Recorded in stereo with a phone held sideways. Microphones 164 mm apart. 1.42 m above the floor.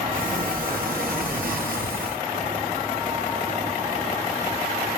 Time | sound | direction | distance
0.1 | a sliding door | 60° right (ahead or behind) | 1.1 m